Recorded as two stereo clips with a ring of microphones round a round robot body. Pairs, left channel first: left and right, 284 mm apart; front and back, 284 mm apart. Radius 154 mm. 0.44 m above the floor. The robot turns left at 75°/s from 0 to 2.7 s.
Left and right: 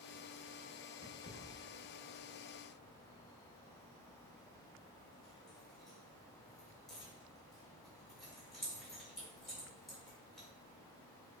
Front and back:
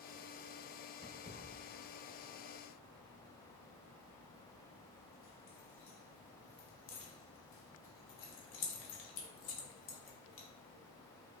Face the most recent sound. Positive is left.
turn(degrees=0)